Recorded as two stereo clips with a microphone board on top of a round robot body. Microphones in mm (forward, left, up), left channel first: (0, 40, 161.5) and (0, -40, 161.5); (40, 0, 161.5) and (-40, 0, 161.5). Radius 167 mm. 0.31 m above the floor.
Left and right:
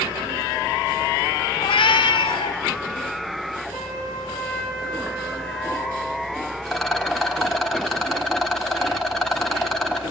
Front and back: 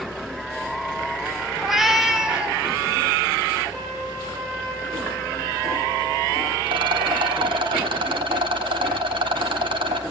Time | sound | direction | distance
1.6 | a cat meowing | 90° left | 0.9 m
3.7 | a trumpet | 125° right | 9 m
6.7 | a rattle | 175° left | 1.5 m